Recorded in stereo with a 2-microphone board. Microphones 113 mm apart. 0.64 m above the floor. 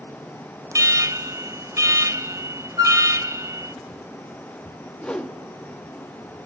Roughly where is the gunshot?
No gunshot in this recording.